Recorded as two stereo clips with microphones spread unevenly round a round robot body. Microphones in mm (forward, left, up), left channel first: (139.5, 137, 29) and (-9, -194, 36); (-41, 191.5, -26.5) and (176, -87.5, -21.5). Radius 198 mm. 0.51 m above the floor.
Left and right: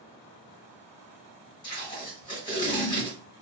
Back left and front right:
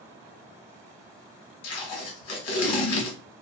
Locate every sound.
1.6 s tape being pulled: 145° left, 0.9 m